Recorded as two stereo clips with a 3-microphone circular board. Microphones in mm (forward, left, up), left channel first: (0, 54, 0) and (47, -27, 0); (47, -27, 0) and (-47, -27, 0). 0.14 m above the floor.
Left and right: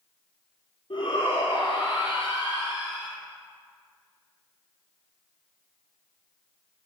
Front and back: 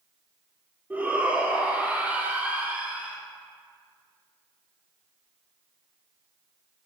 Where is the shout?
110° left, 4.5 m.